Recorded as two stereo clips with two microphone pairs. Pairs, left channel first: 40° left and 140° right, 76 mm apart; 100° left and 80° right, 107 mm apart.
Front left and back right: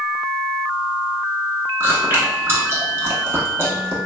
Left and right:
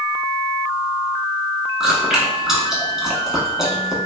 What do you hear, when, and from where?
1.8 s chewing: 165° right, 0.7 m